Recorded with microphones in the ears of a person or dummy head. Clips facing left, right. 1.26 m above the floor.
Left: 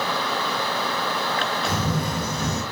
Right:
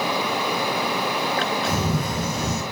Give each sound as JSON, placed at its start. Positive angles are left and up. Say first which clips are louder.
{"t": 1.7, "sound": "a camera shutter", "louder": "right 1 dB", "side_deg": -80, "distance_m": 1.1}